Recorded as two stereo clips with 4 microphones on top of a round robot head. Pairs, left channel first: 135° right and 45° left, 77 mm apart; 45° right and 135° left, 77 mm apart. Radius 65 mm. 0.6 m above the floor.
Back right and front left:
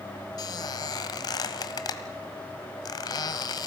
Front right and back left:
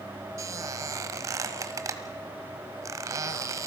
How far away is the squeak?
About 1.3 m.